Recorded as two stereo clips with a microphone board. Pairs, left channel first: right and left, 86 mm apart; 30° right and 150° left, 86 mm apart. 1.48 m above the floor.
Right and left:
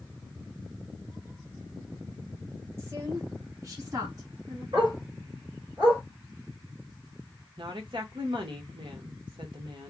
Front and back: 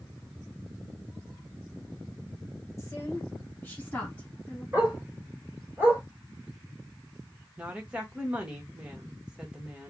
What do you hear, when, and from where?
2.8 s a woman speaking: 25° left, 1.4 m; by 4.6 s 45° left, 2.5 m
4.7 s a dog barking: 85° left, 2 m
7.6 s a woman speaking: 75° left, 1.3 m